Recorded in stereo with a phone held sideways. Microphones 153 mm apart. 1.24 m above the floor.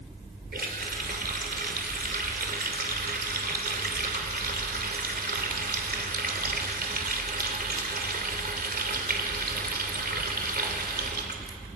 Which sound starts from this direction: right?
A running tap, at 0.5 s.